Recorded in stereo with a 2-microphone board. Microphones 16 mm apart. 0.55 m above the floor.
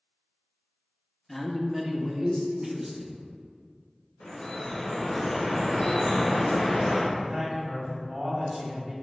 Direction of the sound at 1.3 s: 15° left (ahead or behind).